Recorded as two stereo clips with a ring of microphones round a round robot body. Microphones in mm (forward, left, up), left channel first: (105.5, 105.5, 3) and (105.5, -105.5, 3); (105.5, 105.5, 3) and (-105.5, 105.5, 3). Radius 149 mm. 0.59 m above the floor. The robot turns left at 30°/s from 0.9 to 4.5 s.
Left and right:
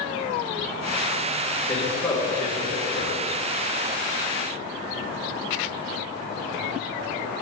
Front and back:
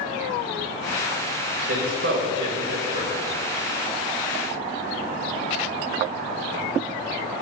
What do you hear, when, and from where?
1.7 s a man speaking: 175° left, 3 m; by 3.3 s 130° left, 3 m